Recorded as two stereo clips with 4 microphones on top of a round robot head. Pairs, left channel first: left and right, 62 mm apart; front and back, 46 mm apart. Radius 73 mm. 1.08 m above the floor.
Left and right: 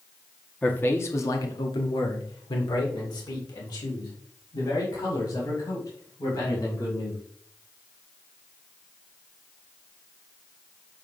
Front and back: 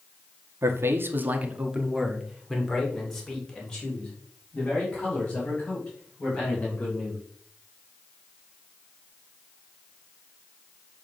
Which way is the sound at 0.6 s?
160° left.